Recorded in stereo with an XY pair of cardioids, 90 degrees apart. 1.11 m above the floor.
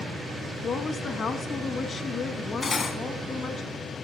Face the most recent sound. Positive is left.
turn(degrees=40)